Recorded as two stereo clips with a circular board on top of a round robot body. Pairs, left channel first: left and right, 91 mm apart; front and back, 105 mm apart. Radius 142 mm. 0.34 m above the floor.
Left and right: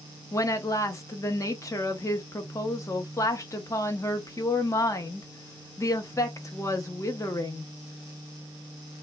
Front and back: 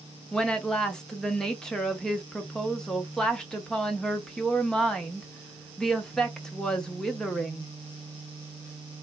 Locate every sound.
0.3 s a woman speaking: 80° left, 1.1 m